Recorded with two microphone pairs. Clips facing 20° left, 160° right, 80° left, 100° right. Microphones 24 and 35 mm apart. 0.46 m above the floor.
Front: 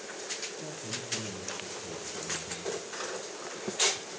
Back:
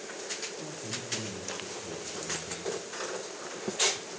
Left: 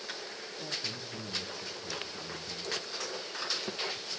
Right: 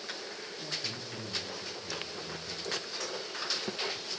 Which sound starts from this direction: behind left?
A man speaking, at 0.6 s.